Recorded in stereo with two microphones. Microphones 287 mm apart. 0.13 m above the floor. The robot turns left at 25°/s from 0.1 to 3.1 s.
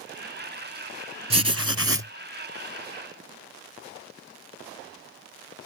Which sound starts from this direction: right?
Writing, at 1.3 s.